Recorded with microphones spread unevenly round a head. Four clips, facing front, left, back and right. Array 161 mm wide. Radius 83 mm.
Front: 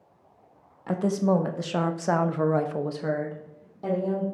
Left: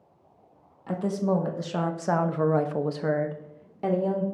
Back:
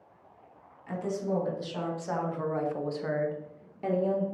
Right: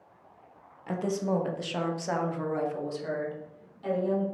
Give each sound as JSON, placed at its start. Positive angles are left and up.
{"t": 0.9, "sound": "a woman speaking", "azimuth_deg": 0, "distance_m": 1.3}